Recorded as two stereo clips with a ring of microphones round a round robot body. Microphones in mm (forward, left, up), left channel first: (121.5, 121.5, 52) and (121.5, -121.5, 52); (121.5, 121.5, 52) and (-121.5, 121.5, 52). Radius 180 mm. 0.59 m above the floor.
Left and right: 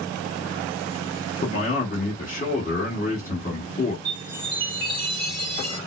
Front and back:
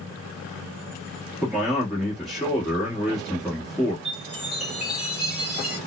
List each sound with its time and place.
1.4 s a man speaking: 90° left, 1.2 m
4.0 s a chime: 100° right, 1.2 m